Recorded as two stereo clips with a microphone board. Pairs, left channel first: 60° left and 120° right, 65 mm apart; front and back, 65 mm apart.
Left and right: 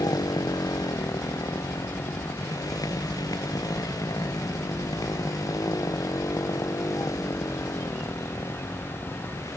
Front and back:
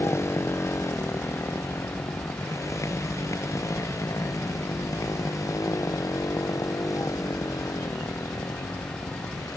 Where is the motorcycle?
45° left; by 9.6 s 30° left.